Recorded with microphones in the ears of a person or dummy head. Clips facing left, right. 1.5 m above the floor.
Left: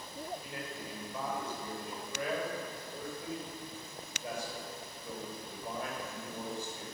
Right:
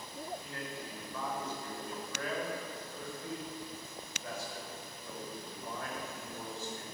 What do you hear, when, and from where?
0.4 s a man speaking: 15° left (ahead or behind), 6 m